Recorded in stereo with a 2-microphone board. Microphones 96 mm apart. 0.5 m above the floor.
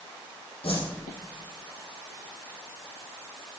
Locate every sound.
0.6 s a whoosh: 70° left (ahead or behind), 5 m